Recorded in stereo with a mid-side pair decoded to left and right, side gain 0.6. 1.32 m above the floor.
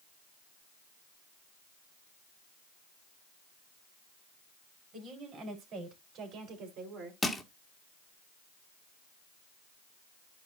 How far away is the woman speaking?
About 4.5 m.